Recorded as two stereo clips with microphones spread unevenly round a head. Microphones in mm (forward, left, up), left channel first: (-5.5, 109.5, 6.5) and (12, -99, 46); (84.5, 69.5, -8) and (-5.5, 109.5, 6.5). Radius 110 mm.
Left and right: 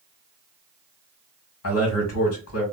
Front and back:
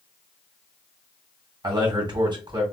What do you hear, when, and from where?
1.6 s a man speaking: 115° left, 1.9 m